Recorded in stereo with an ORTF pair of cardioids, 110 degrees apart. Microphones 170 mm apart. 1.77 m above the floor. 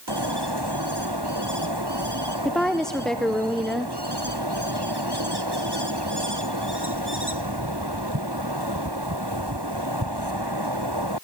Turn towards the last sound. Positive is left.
turn(degrees=5)